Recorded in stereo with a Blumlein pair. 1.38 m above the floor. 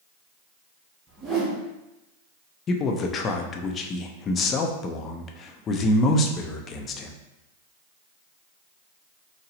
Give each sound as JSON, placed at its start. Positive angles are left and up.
{"t": 1.1, "sound": "a whoosh", "azimuth_deg": -15, "distance_m": 0.9}
{"t": 2.7, "sound": "a man speaking", "azimuth_deg": 25, "distance_m": 0.5}